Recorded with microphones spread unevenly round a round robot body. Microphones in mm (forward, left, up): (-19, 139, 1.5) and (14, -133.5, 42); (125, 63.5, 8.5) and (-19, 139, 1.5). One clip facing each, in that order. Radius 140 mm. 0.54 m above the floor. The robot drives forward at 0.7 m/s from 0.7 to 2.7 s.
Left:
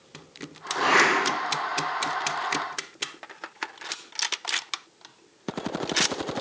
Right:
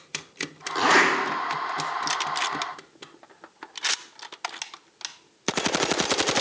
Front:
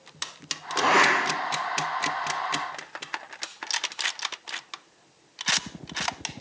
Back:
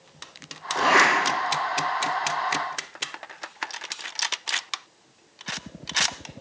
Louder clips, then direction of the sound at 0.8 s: Right 2 dB, back 1 dB; 125° right.